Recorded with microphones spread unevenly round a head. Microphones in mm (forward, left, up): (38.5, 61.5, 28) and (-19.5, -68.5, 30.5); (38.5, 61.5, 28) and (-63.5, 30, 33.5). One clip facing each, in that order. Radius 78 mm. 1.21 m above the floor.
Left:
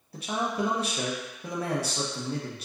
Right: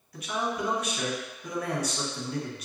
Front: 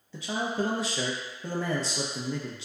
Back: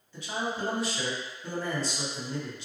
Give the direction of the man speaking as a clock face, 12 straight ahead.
12 o'clock.